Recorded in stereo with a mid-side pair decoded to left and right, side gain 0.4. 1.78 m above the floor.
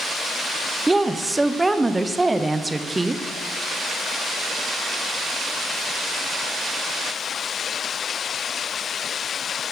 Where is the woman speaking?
20° right, 0.9 m.